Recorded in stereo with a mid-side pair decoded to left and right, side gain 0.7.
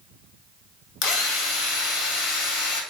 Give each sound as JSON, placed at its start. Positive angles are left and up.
{"t": 1.0, "sound": "a drill", "azimuth_deg": 65, "distance_m": 1.0}